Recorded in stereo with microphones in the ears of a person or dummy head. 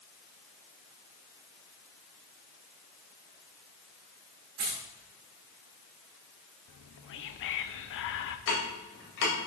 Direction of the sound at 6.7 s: 70° left (ahead or behind).